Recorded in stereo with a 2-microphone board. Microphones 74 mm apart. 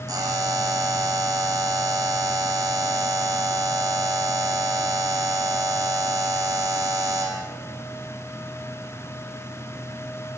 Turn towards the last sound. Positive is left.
turn(degrees=-65)  # may be behind; listen again after turning